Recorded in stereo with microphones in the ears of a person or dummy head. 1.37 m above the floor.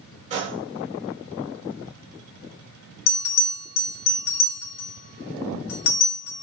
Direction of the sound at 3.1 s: 65° left (ahead or behind).